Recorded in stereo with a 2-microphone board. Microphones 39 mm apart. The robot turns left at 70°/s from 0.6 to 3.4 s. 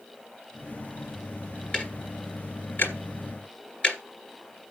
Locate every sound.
1.7 s ticking: 30° left (ahead or behind), 2 m; by 4.0 s 25° left (ahead or behind), 2 m